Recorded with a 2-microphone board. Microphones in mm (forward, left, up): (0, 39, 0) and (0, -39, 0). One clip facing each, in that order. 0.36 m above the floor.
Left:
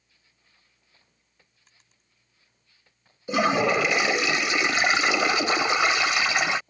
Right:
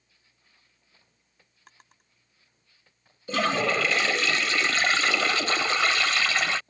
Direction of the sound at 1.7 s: 70° right (ahead or behind).